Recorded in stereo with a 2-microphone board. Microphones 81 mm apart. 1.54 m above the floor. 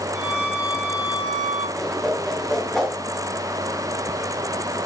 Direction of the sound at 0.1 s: 15° right (ahead or behind).